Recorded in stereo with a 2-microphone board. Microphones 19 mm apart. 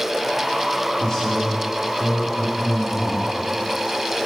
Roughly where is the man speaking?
Left.